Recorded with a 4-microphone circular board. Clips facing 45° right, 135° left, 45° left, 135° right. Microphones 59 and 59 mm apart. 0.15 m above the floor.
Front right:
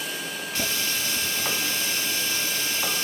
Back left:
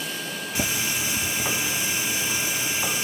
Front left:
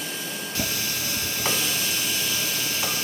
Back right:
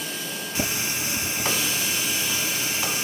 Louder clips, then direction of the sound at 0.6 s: Back left 2 dB, back right 2 dB; 175° right.